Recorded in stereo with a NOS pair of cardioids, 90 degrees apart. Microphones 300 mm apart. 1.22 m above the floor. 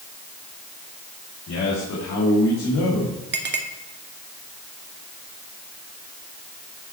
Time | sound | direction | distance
1.5 | a man speaking | 55° left | 3 m
3.3 | a clink | 35° right | 1.9 m